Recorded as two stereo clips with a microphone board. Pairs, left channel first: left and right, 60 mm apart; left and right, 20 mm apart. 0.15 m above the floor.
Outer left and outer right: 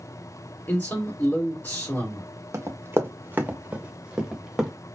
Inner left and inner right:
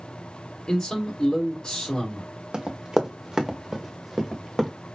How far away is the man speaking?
About 2.5 m.